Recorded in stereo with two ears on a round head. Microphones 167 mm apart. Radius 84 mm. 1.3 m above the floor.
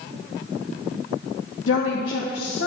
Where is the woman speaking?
80° left, 1.1 m.